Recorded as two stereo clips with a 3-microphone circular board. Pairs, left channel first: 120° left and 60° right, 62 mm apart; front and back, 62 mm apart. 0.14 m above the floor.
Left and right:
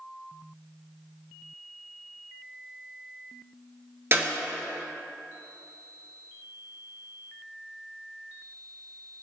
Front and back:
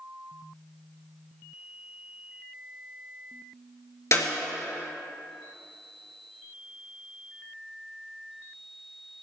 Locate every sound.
4.1 s a clap: 25° right, 2.5 m